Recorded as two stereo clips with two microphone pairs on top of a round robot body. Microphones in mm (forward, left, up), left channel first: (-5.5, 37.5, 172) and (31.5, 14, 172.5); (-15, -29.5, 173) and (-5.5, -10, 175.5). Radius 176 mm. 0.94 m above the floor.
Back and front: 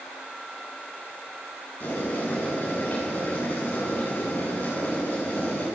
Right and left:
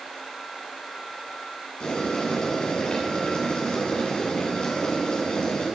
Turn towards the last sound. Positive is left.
turn(degrees=-160)